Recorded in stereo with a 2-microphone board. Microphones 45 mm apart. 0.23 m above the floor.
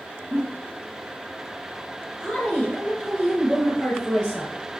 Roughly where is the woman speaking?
Left.